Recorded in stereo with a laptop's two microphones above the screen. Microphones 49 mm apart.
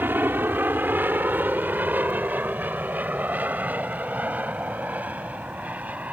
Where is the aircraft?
45° right (ahead or behind); by 6.1 s 30° right (ahead or behind).